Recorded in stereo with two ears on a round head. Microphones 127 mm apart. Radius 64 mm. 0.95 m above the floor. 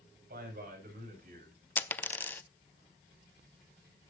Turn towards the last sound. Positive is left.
turn(degrees=15)  # may be behind; listen again after turning